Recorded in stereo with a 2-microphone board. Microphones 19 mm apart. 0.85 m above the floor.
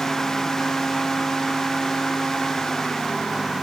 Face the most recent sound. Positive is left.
No sound to turn to.